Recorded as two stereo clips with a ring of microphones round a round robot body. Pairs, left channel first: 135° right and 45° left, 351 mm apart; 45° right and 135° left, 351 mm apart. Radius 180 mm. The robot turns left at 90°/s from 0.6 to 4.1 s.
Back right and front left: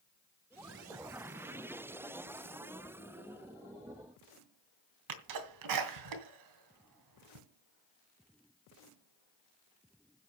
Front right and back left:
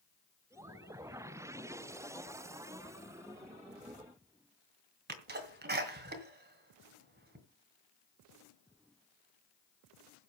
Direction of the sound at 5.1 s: 75° left.